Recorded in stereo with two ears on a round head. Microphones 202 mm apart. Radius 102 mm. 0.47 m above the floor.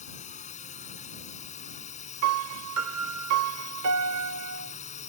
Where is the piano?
70° right (ahead or behind).